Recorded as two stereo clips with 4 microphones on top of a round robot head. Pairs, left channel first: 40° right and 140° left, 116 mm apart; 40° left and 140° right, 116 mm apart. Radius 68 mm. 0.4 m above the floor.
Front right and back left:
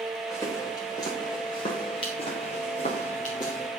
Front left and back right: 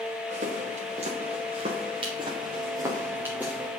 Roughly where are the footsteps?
Right.